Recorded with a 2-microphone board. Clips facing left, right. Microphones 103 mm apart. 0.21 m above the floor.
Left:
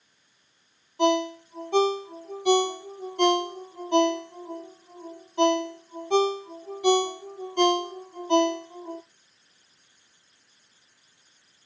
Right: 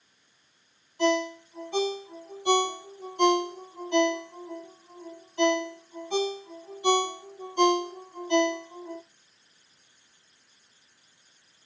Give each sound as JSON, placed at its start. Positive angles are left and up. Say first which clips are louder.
{"t": 1.0, "sound": "a ringtone", "louder": "left 2 dB", "side_deg": 60, "distance_m": 3.0}